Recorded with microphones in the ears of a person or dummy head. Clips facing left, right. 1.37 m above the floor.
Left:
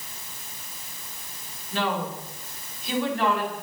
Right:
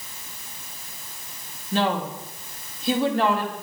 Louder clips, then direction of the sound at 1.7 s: Right 4 dB; 30° right (ahead or behind).